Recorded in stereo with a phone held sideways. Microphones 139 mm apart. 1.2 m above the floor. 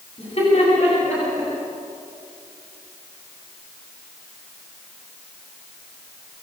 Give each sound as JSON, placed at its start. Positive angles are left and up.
{"t": 0.2, "sound": "laughter", "side_deg": 50, "distance_m": 8.5}